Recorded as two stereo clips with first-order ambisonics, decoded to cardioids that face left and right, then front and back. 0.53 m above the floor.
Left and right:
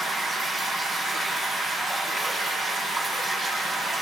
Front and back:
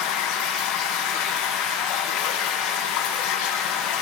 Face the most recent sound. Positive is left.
turn(degrees=0)